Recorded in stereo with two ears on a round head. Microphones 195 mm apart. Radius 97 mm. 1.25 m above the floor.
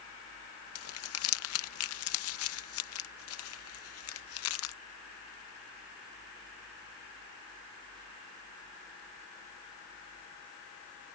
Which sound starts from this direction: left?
Crumpling, at 0.8 s.